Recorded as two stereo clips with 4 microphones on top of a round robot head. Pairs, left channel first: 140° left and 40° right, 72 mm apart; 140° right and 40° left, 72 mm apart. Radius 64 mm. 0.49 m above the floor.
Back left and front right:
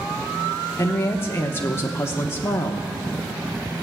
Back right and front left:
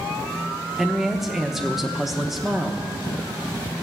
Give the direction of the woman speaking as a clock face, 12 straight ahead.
8 o'clock.